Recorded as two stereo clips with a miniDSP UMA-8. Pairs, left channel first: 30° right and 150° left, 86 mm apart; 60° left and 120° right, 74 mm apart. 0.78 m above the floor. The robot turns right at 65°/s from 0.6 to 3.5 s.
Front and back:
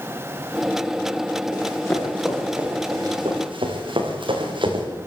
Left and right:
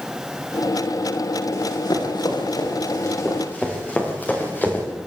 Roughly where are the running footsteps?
Ahead.